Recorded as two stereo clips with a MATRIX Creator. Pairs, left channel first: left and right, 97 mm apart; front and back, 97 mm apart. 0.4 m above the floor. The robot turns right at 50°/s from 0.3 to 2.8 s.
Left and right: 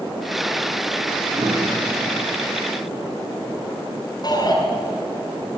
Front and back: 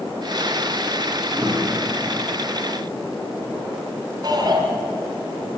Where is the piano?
120° right, 4 m; by 2.3 s 70° right, 4 m.